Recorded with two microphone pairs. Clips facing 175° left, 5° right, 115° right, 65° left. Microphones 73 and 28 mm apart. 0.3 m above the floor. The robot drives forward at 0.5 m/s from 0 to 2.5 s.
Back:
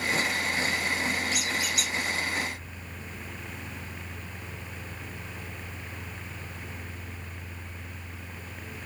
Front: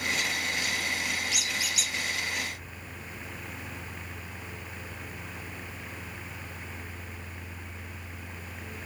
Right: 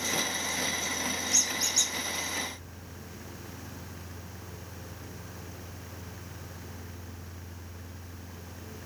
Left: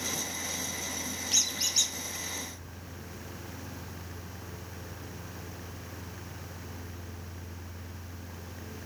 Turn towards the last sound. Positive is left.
turn(degrees=145)